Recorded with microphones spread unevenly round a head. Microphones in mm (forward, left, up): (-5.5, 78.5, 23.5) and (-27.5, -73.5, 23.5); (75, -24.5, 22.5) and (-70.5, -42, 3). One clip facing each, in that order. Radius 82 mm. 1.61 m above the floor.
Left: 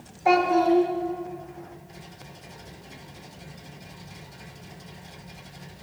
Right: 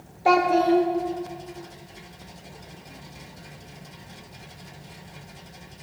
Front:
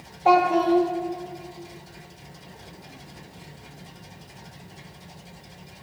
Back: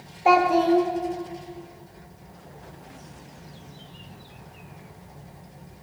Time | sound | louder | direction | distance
0.2 | a child speaking | right 1 dB, even | 85° right | 0.6 m